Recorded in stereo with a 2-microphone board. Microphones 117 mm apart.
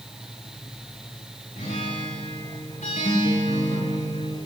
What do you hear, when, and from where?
1.6 s a guitar: 85° left, 4 m